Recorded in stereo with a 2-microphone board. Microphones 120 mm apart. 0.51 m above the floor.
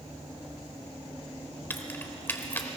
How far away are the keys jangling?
About 1.0 m.